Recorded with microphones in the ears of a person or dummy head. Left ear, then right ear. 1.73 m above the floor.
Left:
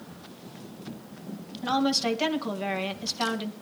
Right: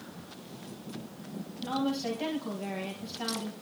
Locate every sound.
1.6 s a woman speaking: 55° left (ahead or behind), 2.5 m